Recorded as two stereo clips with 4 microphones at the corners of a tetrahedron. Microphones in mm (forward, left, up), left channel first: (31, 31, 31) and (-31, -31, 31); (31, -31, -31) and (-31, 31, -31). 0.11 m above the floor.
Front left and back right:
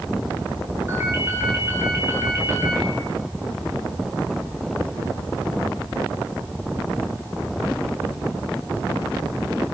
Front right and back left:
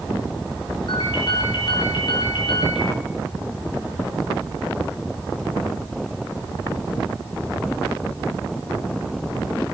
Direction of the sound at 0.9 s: 75° right.